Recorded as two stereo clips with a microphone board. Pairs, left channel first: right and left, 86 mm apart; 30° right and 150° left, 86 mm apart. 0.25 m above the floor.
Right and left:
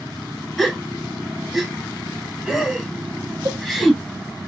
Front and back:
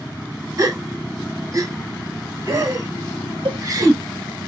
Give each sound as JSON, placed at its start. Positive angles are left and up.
{"t": 0.6, "sound": "a gasp", "azimuth_deg": 180, "distance_m": 0.9}
{"t": 3.5, "sound": "a cowbell", "azimuth_deg": 140, "distance_m": 0.5}